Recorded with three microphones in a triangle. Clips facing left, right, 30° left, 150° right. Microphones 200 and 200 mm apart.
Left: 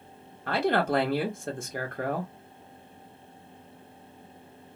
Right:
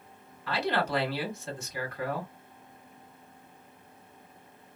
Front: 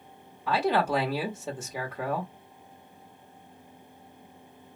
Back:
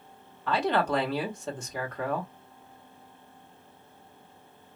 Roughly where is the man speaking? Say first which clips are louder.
Left 4 dB, front 1 dB; left.